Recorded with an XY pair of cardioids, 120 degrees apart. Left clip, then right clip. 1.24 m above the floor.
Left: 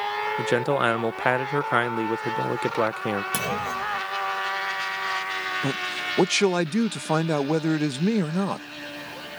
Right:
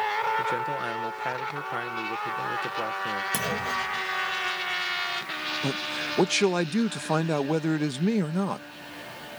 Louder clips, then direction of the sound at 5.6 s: Left 2 dB; 15° left.